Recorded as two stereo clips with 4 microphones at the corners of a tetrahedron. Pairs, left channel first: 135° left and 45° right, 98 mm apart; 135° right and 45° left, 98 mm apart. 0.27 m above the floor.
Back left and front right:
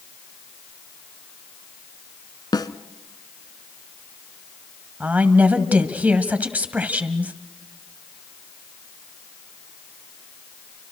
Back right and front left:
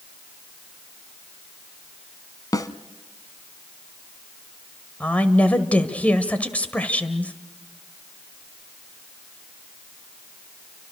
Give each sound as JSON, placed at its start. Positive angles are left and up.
{"t": 2.5, "sound": "a snare drum", "azimuth_deg": 175, "distance_m": 1.0}
{"t": 5.0, "sound": "a woman speaking", "azimuth_deg": -85, "distance_m": 1.5}